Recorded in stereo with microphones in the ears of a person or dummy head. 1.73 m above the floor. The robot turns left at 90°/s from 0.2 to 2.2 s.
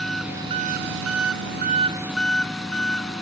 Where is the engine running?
Straight ahead; by 3.2 s straight behind.